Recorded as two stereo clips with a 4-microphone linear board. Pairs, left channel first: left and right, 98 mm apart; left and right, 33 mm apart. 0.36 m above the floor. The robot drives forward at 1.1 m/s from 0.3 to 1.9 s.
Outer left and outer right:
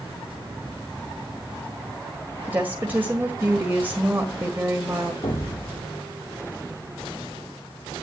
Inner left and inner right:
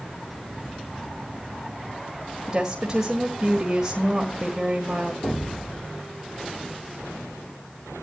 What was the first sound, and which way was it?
A woman speaking, 20° right (ahead or behind).